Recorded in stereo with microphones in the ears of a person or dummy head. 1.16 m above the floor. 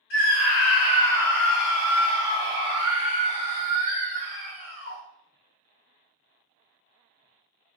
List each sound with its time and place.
0.1 s a scream: 50° left (ahead or behind), 1.0 m; by 5.0 s 50° right (ahead or behind), 2.5 m